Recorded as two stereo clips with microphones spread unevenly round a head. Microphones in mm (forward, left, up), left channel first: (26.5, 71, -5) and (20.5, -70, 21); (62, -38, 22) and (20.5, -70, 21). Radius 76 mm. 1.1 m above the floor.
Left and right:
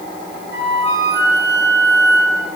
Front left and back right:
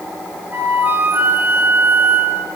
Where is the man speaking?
I don't hear a man speaking.